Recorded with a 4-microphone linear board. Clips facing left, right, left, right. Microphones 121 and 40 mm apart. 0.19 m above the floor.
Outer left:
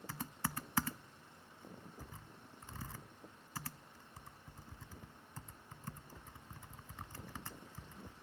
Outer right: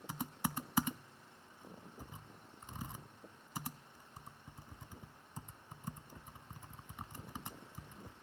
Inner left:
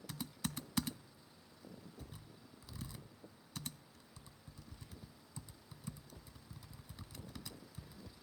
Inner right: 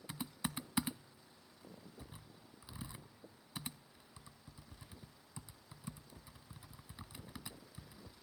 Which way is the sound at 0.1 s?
15° right (ahead or behind).